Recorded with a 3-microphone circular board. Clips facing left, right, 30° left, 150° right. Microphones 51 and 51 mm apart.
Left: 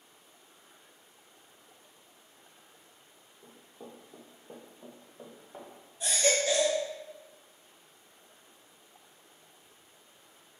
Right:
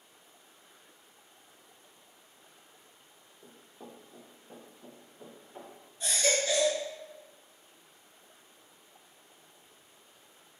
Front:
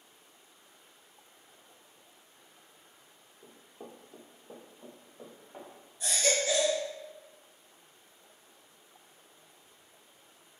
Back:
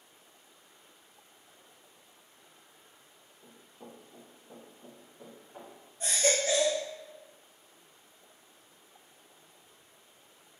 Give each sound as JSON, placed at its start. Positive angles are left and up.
{"t": 3.4, "sound": "running footsteps", "azimuth_deg": -20, "distance_m": 0.7}
{"t": 6.0, "sound": "a baby crying", "azimuth_deg": 165, "distance_m": 1.1}